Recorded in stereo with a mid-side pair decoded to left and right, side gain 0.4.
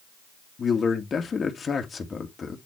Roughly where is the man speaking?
Ahead left.